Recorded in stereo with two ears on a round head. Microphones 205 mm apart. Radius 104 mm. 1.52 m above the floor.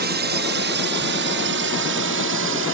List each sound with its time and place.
0.0 s a drone: 45° right (ahead or behind); by 2.8 s 60° right (ahead or behind)